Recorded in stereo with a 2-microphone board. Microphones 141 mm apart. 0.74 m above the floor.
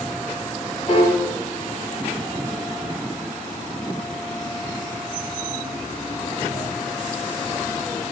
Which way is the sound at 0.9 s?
40° left (ahead or behind).